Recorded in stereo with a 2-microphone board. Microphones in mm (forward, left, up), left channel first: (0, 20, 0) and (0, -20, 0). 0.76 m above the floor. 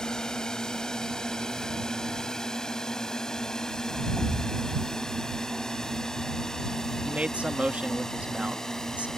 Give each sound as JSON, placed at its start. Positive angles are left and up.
{"t": 0.0, "sound": "a drone", "side_deg": 15}
{"t": 4.2, "sound": "a thud", "side_deg": 60}
{"t": 7.0, "sound": "a man speaking", "side_deg": -35}